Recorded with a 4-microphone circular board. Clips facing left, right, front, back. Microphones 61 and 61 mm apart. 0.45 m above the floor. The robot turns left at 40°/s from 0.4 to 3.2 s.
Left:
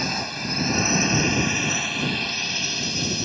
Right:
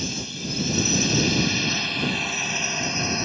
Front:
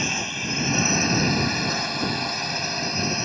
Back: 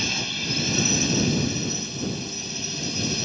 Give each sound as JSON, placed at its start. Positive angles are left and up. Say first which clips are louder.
{"t": 0.0, "sound": "a drone", "louder": "left 4 dB, front 2 dB", "azimuth_deg": 65}